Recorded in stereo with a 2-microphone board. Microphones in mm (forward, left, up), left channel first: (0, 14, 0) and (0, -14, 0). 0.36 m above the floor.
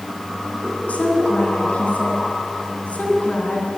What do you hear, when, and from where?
0.9 s a woman speaking: 55° left (ahead or behind), 3 m